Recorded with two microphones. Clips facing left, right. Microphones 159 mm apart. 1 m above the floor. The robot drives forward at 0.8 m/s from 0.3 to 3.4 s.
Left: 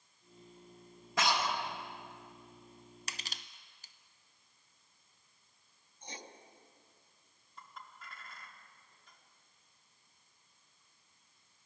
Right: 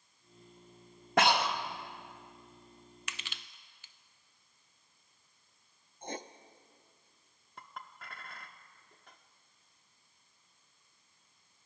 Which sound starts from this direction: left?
Crushing, at 3.1 s.